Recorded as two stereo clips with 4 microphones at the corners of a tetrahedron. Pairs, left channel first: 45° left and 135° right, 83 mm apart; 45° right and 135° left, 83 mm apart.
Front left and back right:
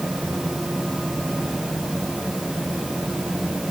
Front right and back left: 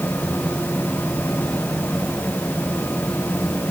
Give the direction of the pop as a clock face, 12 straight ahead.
I don't hear a pop.